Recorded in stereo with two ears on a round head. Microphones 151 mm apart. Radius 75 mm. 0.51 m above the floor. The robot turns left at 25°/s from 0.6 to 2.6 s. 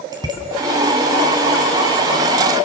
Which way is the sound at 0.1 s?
25° right (ahead or behind).